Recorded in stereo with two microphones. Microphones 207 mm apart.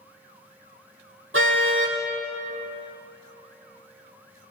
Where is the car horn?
80° right, 5 m.